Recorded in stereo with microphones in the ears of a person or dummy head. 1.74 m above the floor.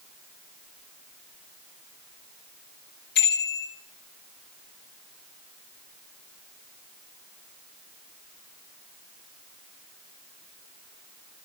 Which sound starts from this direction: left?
A bicycle bell, at 3.1 s.